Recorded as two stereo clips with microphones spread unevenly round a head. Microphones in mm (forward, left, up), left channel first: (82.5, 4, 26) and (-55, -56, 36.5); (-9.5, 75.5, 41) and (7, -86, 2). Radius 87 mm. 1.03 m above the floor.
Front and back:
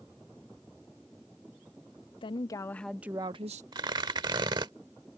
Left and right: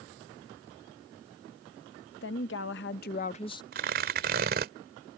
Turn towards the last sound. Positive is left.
turn(degrees=-110)